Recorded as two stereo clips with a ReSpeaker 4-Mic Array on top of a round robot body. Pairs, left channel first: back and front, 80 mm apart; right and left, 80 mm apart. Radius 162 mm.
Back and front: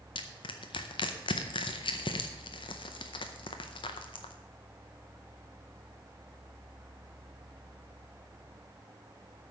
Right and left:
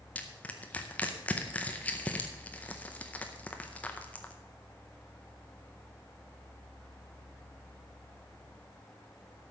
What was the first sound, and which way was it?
Crushing, 165° right.